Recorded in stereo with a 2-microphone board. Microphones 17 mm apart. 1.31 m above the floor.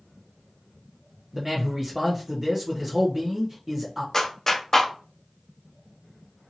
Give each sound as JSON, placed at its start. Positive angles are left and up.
{"t": 1.3, "sound": "a man speaking", "side_deg": -30, "distance_m": 0.7}
{"t": 4.1, "sound": "a clap", "side_deg": 30, "distance_m": 0.7}